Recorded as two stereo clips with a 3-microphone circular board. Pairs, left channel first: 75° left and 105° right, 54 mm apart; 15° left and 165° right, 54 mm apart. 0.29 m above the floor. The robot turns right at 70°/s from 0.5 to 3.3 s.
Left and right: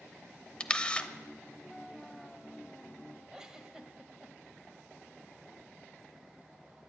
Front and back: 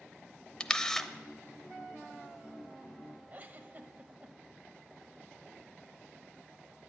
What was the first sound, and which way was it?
A camera shutter, 50° left.